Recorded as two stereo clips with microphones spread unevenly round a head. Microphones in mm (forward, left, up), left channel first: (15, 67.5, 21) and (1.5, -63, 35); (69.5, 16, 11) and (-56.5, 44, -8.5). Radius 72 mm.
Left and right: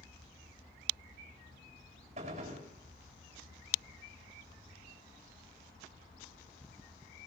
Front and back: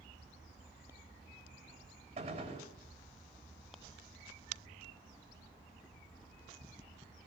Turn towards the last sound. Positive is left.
turn(degrees=-140)